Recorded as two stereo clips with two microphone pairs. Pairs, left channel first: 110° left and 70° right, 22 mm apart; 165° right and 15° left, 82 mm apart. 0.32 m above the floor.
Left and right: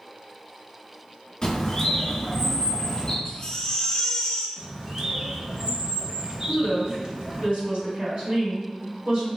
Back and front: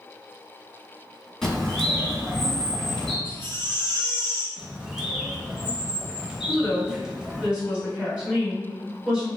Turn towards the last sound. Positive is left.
turn(degrees=-55)